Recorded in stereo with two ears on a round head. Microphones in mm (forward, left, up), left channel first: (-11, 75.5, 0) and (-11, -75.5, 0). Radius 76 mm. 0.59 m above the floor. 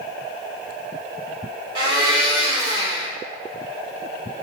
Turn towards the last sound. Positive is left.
turn(degrees=-35)  # may be behind; listen again after turning